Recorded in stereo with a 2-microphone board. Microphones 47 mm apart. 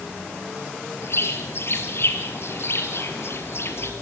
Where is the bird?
60° left (ahead or behind), 2.5 m.